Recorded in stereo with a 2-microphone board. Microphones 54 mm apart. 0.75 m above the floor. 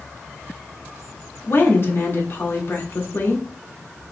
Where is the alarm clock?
I don't hear an alarm clock.